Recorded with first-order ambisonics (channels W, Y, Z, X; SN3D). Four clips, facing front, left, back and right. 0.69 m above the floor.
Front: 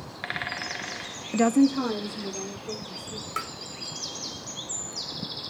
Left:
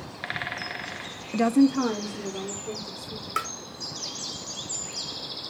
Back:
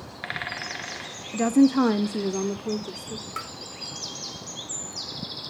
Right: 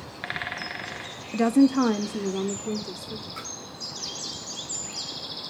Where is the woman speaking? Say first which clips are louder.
Right 1 dB, back 2 dB; 15° left, 0.6 m; by 3.3 s 160° right, 2.5 m.